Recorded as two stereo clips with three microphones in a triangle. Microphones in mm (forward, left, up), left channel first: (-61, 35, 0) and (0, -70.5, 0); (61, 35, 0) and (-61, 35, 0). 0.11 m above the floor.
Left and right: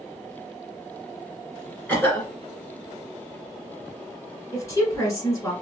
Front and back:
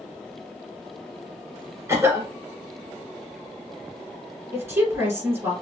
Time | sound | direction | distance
1.9 | a cough | 165° left | 1.4 m
4.5 | a woman speaking | 140° left | 1.8 m